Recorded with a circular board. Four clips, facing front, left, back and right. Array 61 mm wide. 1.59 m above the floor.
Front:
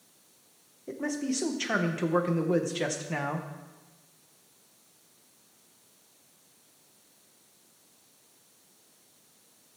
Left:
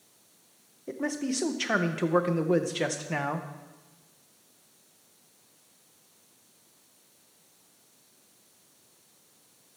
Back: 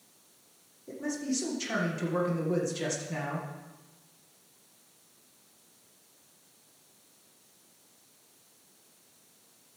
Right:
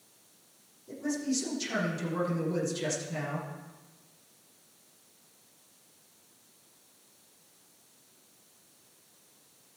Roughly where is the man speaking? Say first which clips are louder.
Left 1 dB, front 2 dB; ahead left.